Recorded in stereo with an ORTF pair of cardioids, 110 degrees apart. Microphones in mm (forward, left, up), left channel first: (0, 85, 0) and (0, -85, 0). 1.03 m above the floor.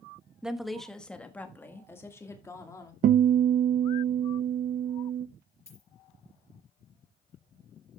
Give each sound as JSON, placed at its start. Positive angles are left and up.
{"t": 0.4, "sound": "a woman speaking", "azimuth_deg": -5, "distance_m": 1.0}
{"t": 3.0, "sound": "a guitar", "azimuth_deg": -60, "distance_m": 0.6}
{"t": 5.7, "sound": "a dropped coin", "azimuth_deg": 20, "distance_m": 4.5}